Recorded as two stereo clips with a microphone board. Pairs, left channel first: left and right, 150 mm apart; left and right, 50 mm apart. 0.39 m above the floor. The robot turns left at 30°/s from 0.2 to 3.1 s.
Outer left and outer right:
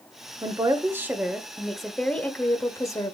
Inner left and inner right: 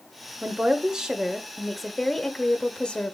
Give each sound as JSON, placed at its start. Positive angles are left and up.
{"t": 0.4, "sound": "a woman speaking", "azimuth_deg": -140, "distance_m": 1.0}